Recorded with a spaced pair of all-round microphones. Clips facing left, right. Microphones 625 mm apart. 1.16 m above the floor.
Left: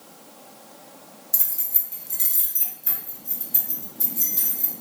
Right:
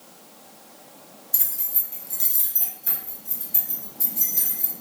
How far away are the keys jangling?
About 0.6 m.